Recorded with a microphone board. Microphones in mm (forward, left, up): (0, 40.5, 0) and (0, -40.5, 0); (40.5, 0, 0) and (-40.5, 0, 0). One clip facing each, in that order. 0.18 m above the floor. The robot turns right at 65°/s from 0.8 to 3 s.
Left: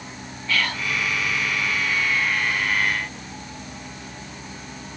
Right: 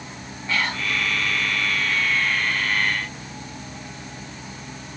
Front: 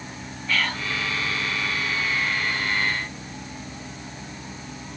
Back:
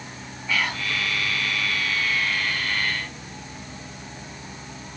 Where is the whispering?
115° right, 1.1 m.